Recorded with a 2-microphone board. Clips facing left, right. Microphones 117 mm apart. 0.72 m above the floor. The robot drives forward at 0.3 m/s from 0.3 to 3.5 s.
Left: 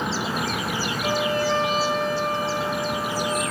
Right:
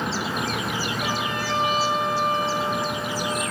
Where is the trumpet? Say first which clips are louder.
Left 4 dB; 85° right, 8 m; by 3.4 s 80° right, 8.5 m.